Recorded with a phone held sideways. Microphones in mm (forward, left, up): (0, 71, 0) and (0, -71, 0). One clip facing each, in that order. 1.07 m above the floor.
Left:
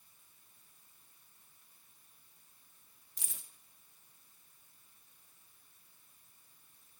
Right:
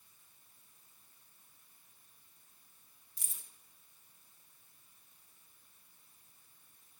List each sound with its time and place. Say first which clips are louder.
3.2 s keys jangling: left 5 dB; 75° left (ahead or behind), 0.7 m